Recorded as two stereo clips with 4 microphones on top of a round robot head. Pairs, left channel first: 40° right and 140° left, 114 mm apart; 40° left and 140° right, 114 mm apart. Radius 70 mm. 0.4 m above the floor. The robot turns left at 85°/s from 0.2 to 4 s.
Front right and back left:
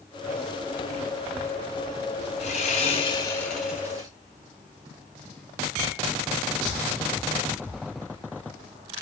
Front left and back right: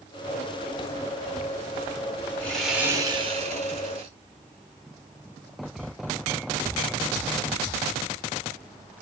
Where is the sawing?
35° right, 3 m; by 4.1 s 170° right, 3 m.